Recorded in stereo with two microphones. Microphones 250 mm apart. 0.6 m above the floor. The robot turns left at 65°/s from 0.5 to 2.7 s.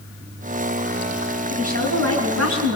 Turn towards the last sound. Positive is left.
turn(degrees=-100)